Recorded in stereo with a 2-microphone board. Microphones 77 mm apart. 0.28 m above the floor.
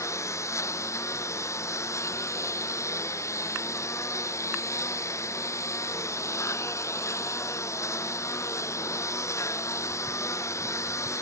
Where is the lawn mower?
40° left (ahead or behind).